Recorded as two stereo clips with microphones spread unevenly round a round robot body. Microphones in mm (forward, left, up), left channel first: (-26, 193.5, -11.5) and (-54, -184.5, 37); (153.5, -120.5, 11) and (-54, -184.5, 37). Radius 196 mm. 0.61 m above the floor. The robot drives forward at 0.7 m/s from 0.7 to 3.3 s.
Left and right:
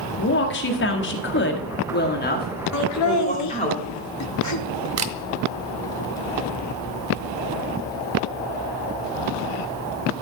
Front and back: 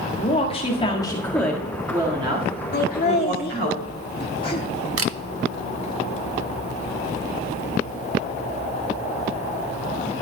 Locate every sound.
0.2 s a woman speaking: 55° left, 1.5 m; by 3.7 s 150° left, 1.9 m
2.7 s laughter: 50° left, 1.1 m; by 4.9 s 75° left, 1.0 m
5.0 s a camera shutter: 145° right, 0.9 m